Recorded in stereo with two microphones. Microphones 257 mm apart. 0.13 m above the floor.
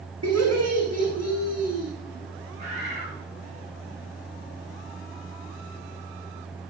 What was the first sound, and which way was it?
Laughter, 80° right.